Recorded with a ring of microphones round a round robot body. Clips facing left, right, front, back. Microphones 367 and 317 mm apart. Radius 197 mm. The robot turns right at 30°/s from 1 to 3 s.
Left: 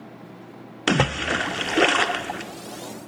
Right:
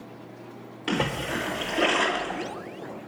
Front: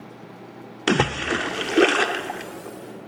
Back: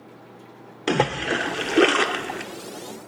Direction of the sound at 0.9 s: 65° left.